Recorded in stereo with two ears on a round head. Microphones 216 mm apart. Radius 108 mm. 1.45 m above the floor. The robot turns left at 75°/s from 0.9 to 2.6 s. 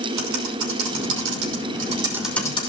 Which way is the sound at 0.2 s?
75° right (ahead or behind).